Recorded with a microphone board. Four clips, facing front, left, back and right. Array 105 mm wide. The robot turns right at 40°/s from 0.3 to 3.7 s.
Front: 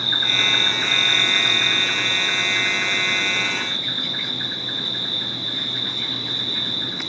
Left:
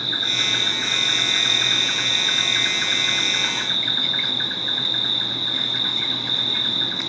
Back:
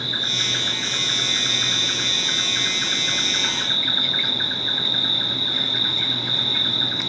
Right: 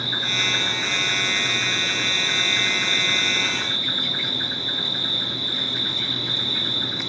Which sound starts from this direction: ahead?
An insect, at 0.0 s.